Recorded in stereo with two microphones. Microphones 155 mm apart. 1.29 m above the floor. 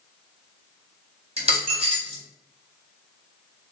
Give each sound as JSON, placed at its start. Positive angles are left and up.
{"t": 1.4, "sound": "a dropped coin", "side_deg": -35, "distance_m": 1.3}